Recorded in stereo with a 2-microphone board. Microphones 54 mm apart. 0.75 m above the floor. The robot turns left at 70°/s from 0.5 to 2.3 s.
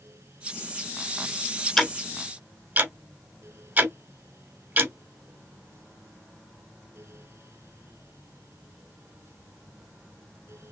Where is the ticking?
5° left (ahead or behind), 1.1 m; by 4.9 s 30° right (ahead or behind), 1.1 m.